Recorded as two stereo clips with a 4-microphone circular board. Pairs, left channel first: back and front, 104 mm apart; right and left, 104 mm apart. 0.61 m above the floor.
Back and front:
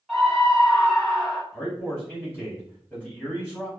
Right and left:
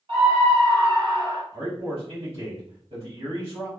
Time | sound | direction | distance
0.1 | a scream | 85° left | 1.6 m
1.5 | a man speaking | 95° left | 1.5 m